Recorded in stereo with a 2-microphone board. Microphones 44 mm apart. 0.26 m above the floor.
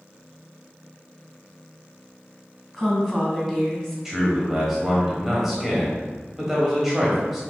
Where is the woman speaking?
10° left (ahead or behind), 1.4 m.